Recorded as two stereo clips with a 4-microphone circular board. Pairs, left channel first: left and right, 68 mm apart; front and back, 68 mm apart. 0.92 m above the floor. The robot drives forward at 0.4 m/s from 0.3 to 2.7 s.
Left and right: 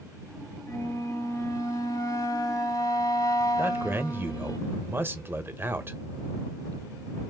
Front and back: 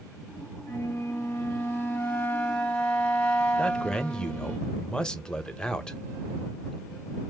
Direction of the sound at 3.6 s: 65° right.